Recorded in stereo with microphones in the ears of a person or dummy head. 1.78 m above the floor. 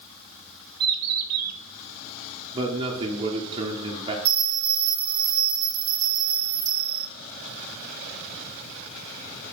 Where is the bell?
30° right (ahead or behind), 1.0 m.